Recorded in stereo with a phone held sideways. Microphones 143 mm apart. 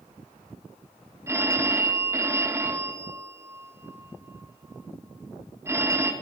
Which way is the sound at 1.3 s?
20° right (ahead or behind).